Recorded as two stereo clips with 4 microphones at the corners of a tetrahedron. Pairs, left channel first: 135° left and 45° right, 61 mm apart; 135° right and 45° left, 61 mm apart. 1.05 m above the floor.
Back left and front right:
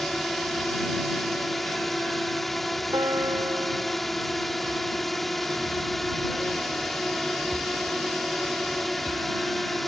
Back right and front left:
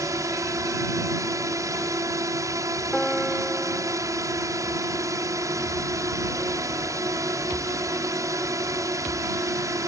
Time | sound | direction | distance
0.0 | a drone | 50° left | ?
2.9 | a piano | 40° right | ?